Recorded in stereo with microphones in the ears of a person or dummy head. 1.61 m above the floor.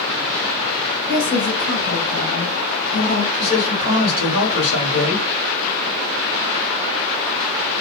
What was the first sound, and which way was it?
A woman speaking, 60° left (ahead or behind).